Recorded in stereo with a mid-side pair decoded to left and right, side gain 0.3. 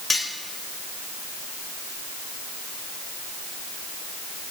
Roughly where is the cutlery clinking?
Ahead left.